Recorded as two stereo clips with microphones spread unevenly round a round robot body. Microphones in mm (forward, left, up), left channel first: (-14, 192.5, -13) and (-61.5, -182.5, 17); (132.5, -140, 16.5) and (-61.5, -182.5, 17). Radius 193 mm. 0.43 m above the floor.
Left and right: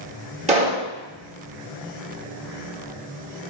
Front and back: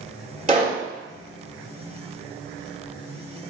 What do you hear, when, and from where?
0.5 s a pop: 160° right, 1.4 m